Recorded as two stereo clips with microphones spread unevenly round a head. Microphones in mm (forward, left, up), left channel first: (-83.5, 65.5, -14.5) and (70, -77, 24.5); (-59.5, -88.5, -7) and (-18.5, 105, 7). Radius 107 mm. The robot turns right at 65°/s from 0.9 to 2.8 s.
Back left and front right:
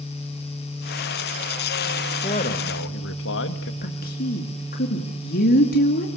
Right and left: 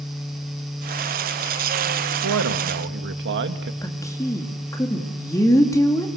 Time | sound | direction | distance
2.2 | a man speaking | 70° left | 2 m
3.8 | a woman speaking | 175° right | 2.5 m